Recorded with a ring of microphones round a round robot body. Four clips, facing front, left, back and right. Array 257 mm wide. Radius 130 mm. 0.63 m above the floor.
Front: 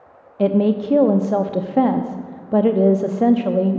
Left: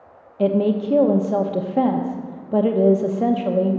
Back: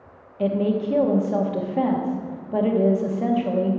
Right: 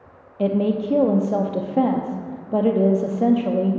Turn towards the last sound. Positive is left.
turn(degrees=5)